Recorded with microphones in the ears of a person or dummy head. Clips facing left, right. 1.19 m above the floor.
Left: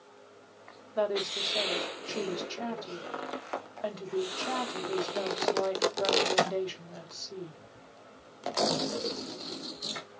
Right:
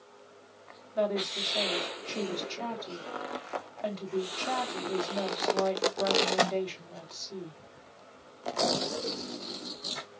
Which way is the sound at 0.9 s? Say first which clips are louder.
Even; 15° left (ahead or behind).